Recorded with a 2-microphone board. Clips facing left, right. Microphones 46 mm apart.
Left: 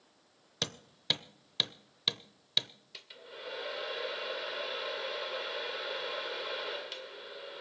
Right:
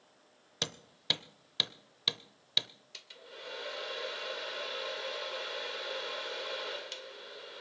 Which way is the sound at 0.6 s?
Centre (ahead or behind).